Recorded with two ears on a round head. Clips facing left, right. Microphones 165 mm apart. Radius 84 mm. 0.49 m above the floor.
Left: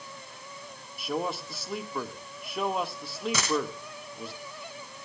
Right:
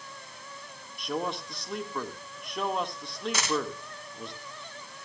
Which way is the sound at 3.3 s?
75° left (ahead or behind).